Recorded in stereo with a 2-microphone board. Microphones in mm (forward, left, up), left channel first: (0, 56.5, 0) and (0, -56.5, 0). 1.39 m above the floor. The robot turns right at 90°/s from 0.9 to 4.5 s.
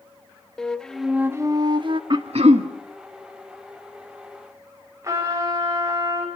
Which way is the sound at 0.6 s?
170° left.